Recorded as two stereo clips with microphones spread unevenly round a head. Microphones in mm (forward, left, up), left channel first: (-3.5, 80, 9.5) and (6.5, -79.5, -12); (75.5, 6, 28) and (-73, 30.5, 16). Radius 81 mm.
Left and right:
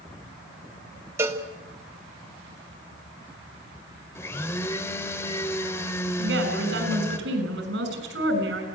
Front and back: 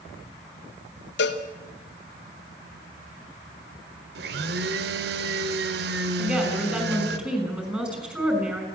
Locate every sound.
1.2 s a cowbell: 10° right, 1.8 m
4.2 s a blender: 165° left, 1.1 m
6.2 s a woman speaking: 105° right, 6 m